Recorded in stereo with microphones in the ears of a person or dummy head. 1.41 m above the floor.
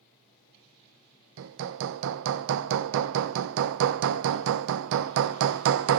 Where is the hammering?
70° right (ahead or behind), 0.7 m.